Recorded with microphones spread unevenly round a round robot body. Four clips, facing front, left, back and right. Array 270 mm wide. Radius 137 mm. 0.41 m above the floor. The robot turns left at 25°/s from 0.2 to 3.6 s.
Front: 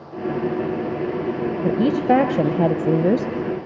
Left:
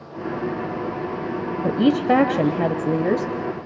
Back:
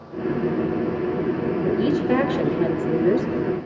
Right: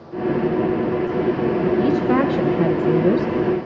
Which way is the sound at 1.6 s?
40° left.